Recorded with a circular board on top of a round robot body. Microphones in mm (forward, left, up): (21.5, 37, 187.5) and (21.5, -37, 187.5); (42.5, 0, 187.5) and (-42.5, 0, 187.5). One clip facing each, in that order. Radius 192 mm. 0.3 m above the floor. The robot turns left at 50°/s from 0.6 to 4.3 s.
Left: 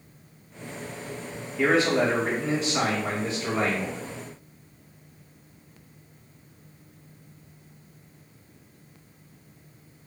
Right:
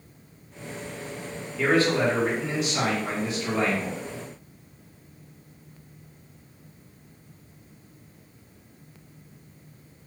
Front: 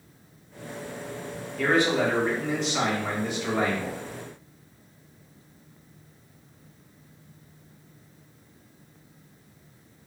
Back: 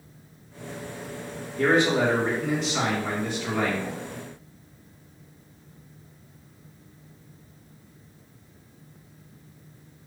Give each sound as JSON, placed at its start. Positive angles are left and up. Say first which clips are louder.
{"t": 1.6, "sound": "a man speaking", "louder": "even, back 2 dB", "azimuth_deg": 150, "distance_m": 1.7}